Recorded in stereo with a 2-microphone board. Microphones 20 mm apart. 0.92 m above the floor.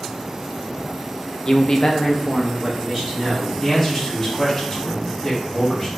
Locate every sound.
1.4 s a man speaking: 30° left (ahead or behind), 0.5 m; by 3.5 s 5° left (ahead or behind), 1.4 m
3.6 s a man speaking: 20° left (ahead or behind), 1.5 m